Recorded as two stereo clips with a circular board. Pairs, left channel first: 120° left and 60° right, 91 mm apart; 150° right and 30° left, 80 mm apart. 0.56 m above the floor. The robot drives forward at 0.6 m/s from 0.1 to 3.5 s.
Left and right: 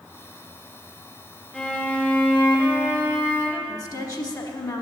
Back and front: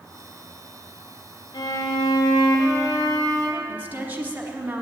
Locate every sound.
1.5 s a violin: 155° right, 0.9 m; by 3.6 s 170° right, 2.0 m
3.7 s a woman speaking: 90° left, 1.1 m